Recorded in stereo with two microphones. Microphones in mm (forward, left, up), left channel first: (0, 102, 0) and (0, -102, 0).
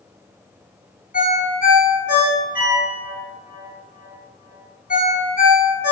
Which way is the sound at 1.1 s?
45° left (ahead or behind).